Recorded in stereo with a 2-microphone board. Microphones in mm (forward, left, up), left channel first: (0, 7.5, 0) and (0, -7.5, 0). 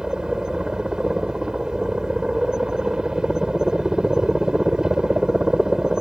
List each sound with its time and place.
0.0 s a helicopter: 50° right (ahead or behind)